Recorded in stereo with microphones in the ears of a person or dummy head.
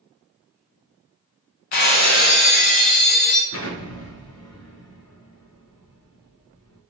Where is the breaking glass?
35° left (ahead or behind), 0.5 m.